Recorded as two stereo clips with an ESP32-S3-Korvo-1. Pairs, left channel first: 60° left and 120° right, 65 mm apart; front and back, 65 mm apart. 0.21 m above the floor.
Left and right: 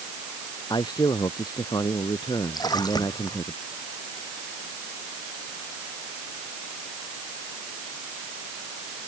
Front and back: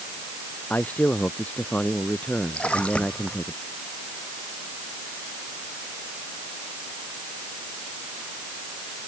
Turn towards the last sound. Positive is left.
turn(degrees=75)